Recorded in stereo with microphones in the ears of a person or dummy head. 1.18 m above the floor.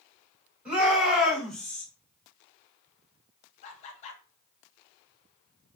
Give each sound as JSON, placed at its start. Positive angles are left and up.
{"t": 0.7, "sound": "a shout", "side_deg": -5, "distance_m": 2.5}
{"t": 3.6, "sound": "laughter", "side_deg": 35, "distance_m": 0.7}